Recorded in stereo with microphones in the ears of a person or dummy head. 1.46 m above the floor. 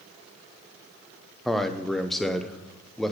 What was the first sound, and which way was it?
A man speaking, 5° left (ahead or behind).